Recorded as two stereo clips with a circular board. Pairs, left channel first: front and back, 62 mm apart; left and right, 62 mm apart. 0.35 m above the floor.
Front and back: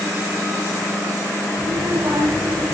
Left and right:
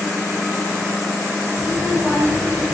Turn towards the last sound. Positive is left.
turn(degrees=-165)